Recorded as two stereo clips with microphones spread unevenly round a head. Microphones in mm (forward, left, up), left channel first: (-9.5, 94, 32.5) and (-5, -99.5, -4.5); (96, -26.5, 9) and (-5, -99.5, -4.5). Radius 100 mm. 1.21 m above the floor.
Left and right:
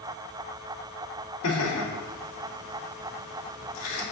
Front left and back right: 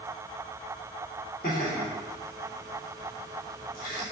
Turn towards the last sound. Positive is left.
turn(degrees=85)